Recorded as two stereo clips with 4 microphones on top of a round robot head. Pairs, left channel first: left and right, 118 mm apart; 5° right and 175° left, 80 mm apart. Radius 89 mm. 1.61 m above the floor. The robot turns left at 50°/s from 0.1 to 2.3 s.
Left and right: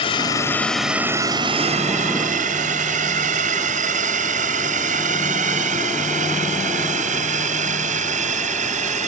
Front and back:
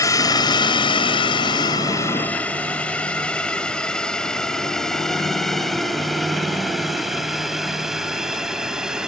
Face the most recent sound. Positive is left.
turn(degrees=-100)